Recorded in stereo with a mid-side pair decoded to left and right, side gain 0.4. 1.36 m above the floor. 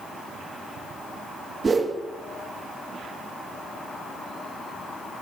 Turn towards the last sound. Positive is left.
turn(degrees=-40)